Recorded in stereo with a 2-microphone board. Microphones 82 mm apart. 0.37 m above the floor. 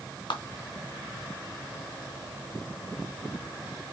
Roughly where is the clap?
Left.